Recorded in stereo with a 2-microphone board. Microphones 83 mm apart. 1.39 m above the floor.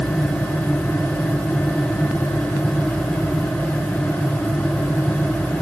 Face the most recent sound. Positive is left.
No sound to turn to.